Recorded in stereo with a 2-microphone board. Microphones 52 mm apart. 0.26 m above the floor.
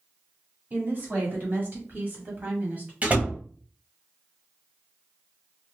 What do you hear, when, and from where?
0.7 s a woman speaking: 40° right (ahead or behind), 1.9 m; by 2.9 s 30° right (ahead or behind), 1.6 m
3.0 s a door slam: 30° right (ahead or behind), 0.9 m